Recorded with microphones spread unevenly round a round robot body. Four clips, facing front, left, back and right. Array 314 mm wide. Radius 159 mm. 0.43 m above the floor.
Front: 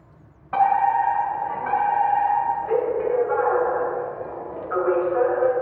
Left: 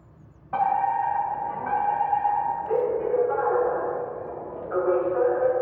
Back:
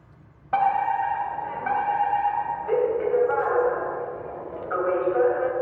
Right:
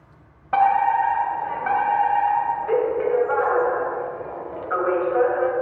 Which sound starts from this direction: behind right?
A fire alarm, at 0.5 s.